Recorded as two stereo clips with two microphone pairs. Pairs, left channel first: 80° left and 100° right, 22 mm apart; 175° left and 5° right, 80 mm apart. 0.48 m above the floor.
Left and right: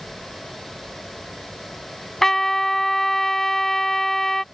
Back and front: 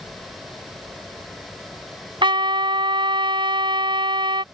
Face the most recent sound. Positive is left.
turn(degrees=5)